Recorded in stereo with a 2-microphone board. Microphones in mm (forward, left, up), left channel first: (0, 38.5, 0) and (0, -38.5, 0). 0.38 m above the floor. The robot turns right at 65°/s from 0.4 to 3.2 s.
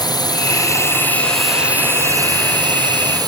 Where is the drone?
110° left; by 3.3 s 65° right.